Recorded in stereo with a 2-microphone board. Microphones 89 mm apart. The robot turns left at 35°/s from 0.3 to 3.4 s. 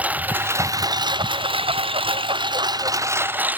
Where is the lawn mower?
15° right (ahead or behind); by 3.6 s 20° right (ahead or behind).